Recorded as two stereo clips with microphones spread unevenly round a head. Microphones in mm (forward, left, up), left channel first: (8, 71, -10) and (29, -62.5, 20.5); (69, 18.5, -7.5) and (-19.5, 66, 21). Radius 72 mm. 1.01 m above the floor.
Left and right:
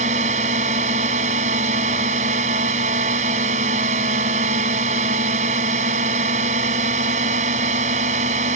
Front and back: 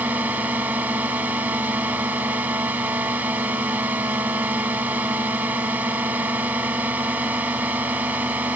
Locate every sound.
0.0 s a drone: 130° right